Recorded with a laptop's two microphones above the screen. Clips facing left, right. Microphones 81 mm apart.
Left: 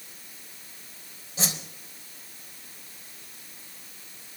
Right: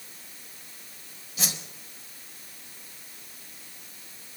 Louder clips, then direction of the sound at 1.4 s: Left 3 dB; 30° left (ahead or behind).